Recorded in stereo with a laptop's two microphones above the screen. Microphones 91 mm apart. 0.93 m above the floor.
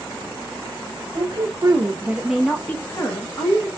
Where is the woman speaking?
50° right (ahead or behind), 1.3 m; by 3.7 s 45° left (ahead or behind), 1.4 m.